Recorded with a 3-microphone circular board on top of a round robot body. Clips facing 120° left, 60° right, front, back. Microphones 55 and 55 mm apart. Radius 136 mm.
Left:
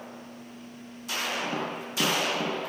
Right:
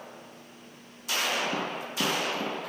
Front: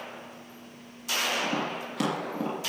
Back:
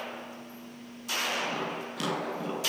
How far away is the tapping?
About 5.5 m.